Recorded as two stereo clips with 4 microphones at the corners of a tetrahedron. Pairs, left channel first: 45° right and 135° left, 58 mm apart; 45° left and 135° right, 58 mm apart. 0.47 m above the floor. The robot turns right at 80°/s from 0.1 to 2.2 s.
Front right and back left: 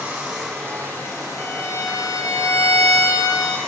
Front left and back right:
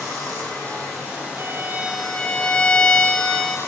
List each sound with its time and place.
0.0 s running water: 160° right, 4 m; by 3.7 s 5° left, 4 m
1.4 s a violin: 95° right, 1.1 m; by 3.6 s 30° right, 1.1 m